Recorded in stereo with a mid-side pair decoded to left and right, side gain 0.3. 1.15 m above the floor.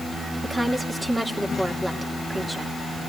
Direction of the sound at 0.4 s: 30° right.